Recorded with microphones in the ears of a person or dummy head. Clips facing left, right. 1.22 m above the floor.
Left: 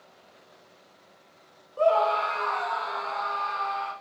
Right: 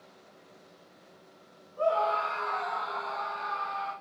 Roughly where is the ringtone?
I don't hear a ringtone.